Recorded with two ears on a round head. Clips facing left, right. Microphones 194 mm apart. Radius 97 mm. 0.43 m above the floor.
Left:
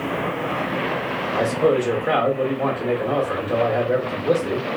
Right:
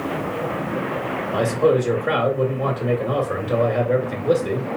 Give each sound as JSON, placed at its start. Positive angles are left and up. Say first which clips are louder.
{"t": 1.3, "sound": "a man speaking", "louder": "right 1 dB", "side_deg": 0, "distance_m": 1.0}